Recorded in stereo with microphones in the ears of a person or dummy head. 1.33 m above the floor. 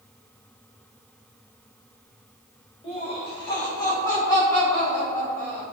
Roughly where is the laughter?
Left.